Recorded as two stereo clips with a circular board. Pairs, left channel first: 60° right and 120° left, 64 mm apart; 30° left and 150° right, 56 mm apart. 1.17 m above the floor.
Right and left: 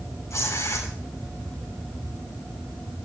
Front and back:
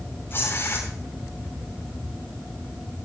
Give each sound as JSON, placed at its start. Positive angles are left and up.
{"t": 0.3, "sound": "tearing paper", "azimuth_deg": -20, "distance_m": 8.0}